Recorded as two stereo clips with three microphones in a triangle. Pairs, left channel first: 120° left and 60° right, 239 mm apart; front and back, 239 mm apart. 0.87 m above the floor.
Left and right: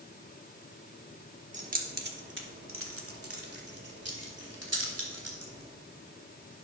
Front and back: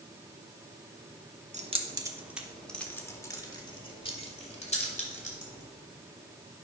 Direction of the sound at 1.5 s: 120° right.